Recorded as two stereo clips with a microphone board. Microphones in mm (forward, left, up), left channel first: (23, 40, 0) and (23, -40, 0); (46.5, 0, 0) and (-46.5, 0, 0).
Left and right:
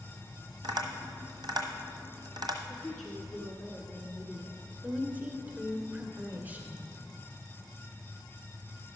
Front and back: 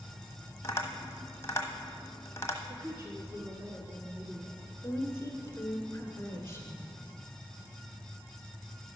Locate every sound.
0.6 s tapping: 65° right, 1.2 m
2.7 s a woman speaking: 170° left, 1.3 m
4.8 s a woman speaking: 35° right, 1.4 m